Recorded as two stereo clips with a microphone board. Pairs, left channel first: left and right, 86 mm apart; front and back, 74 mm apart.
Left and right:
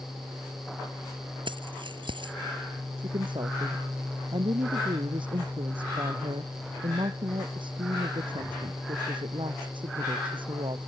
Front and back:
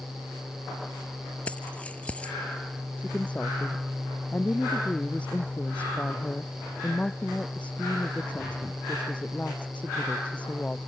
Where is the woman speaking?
75° right.